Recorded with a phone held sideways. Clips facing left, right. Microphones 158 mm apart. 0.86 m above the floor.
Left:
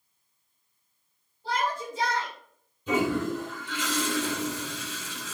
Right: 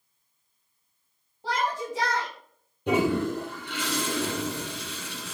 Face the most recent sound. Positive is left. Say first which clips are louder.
# right 2 dB
turn(degrees=-60)  # may be behind; listen again after turning